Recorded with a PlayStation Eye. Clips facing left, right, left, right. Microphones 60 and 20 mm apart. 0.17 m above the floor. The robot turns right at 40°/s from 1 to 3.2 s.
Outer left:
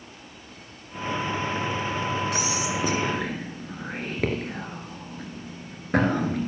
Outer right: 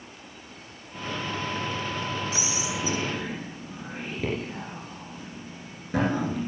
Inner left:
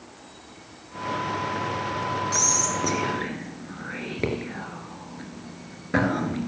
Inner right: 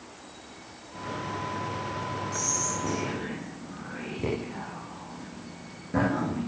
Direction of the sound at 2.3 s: 60° left (ahead or behind).